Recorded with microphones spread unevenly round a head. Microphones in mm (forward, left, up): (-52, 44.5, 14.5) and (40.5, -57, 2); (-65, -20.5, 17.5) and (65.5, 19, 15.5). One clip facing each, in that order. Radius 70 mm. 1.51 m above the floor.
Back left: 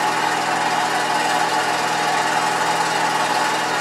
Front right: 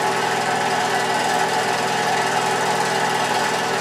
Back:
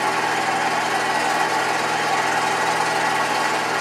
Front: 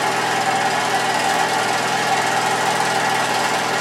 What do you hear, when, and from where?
0.0 s an engine running: straight ahead, 0.7 m